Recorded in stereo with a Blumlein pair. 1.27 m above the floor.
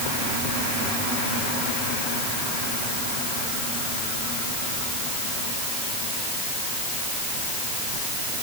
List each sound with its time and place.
Only background noise.